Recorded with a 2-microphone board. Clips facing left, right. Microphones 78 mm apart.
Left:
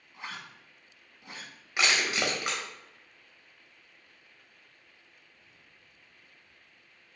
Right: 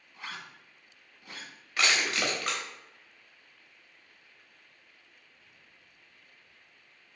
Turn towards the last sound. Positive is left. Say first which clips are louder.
# even
turn(degrees=20)  # may be behind; listen again after turning